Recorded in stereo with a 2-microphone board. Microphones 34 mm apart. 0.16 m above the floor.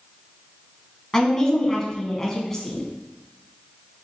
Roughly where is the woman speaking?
Centre.